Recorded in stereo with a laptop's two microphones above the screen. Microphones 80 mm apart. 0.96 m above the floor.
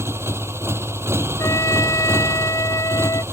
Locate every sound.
0.0 s a motorcycle: 35° right (ahead or behind)
1.4 s a trumpet: 45° left (ahead or behind)